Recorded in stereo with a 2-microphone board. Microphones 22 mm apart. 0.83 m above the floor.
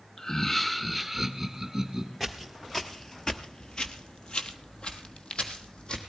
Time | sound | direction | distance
0.2 | laughter | 30° left (ahead or behind) | 0.7 m
2.2 | footsteps | centre (ahead or behind) | 1.0 m